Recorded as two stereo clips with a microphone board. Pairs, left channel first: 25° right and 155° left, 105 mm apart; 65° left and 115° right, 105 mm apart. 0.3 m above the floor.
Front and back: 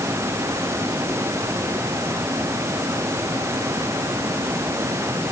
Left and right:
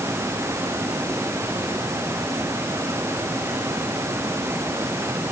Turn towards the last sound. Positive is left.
No sound to turn to.